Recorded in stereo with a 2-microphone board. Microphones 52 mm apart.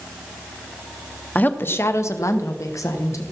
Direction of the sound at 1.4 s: 30° left (ahead or behind).